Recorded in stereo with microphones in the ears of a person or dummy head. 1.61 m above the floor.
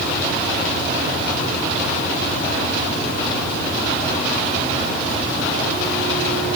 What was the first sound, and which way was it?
Only background noise.